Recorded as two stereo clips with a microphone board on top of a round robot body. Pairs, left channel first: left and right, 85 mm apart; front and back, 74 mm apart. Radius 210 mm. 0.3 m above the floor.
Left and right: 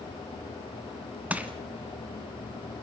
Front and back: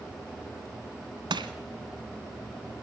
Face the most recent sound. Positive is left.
turn(degrees=-165)